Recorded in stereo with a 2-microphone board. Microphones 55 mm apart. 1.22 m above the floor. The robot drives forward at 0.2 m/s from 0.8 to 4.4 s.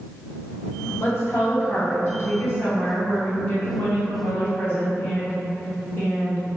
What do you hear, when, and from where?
1.0 s a woman speaking: 55° left (ahead or behind), 1.4 m; by 6.5 s 40° left (ahead or behind), 1.9 m